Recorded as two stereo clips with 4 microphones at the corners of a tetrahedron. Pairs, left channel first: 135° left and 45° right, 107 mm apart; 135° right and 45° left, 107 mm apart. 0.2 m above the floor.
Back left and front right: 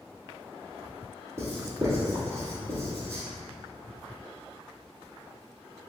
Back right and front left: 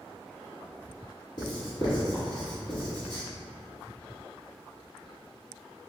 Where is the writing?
100° right, 1.2 m.